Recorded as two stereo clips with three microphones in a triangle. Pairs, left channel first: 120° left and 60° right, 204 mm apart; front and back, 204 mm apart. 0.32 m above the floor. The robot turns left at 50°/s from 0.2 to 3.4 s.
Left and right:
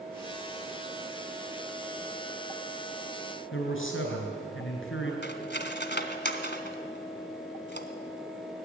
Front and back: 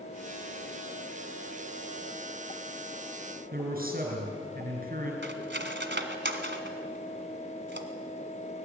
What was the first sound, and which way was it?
A man speaking, 135° left.